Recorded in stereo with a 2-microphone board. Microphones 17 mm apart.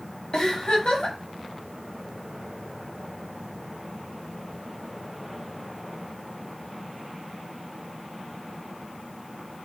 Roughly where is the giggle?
Left.